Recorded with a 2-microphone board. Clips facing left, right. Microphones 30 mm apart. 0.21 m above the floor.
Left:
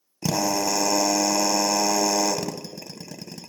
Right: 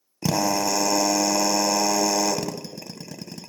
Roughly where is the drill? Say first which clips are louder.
Right 1 dB; centre.